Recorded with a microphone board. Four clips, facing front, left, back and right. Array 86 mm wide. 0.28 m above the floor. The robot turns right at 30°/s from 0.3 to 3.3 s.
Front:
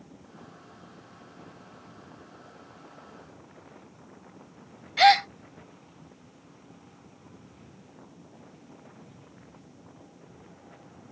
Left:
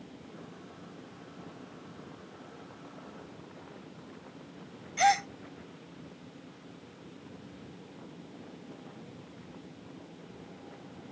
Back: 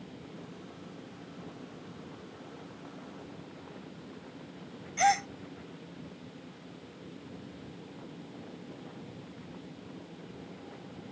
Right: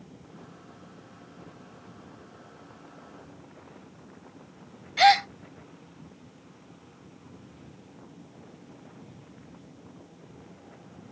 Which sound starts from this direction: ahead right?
A gasp, at 5.0 s.